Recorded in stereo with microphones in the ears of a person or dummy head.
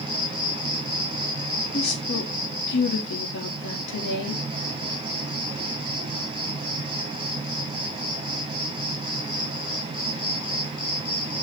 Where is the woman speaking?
60° left (ahead or behind), 3.5 m.